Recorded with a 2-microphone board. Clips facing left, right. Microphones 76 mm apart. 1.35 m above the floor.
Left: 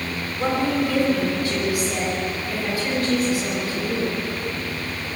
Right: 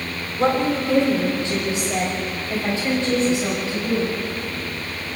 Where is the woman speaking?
25° right (ahead or behind), 4 m.